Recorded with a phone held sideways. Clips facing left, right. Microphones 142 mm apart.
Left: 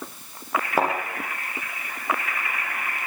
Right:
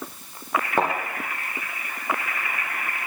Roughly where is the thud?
Centre.